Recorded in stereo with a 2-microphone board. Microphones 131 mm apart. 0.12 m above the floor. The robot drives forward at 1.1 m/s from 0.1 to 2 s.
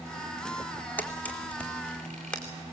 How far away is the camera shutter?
About 1.5 m.